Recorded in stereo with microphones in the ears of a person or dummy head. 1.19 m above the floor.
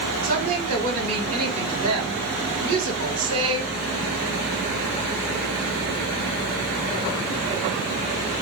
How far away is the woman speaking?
About 1.8 m.